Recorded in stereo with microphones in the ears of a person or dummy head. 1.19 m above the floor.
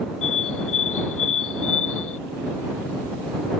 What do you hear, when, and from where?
0.2 s a bird: 80° left